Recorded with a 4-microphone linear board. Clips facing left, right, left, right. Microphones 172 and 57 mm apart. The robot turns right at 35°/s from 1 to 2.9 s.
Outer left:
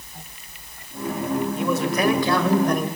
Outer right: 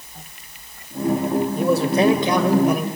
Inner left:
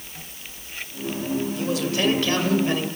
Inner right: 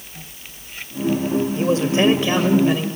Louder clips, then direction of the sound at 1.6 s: Outer right 7 dB, inner right 8 dB; 50° right.